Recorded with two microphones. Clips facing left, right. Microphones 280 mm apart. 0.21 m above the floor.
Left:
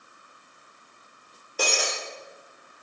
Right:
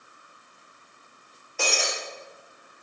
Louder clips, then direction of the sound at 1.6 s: Left 1 dB; 45° left (ahead or behind).